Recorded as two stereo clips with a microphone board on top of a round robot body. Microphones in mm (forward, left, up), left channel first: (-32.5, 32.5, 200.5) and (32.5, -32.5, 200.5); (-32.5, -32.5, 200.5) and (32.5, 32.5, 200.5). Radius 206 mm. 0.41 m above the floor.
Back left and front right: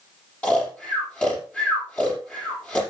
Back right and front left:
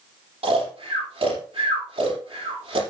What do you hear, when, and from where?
0.4 s snoring: 60° left, 5.5 m